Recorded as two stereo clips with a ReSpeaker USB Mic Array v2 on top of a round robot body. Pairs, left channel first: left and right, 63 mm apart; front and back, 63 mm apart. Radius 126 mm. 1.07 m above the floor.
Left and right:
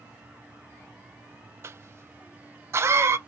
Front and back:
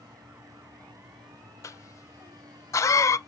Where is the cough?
40° right, 0.5 m.